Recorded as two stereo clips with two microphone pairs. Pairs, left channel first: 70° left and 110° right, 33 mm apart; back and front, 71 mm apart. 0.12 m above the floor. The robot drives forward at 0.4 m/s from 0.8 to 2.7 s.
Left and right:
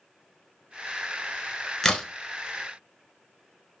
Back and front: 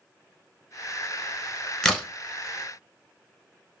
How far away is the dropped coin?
I don't hear a dropped coin.